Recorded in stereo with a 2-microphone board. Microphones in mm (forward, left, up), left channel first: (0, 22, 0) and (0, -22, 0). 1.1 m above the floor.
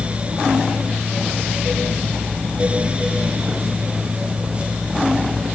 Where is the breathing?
No breathing in this recording.